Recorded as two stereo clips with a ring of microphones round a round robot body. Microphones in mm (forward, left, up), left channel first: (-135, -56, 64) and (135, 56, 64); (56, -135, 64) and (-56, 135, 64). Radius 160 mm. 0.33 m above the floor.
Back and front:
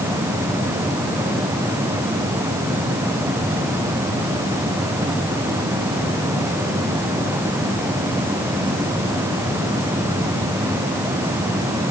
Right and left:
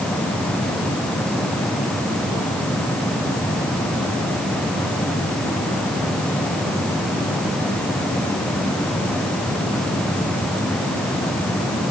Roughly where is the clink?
No clink in this recording.